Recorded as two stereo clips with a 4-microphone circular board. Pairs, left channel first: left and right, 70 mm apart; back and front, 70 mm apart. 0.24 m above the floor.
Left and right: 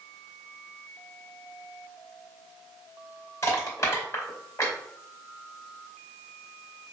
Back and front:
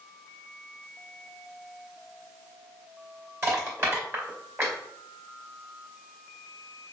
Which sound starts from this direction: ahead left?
Crushing, at 3.4 s.